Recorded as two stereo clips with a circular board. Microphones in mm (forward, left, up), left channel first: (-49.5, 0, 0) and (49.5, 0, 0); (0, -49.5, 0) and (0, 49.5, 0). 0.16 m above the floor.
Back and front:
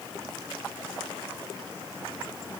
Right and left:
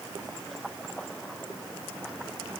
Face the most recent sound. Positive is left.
No sound to turn to.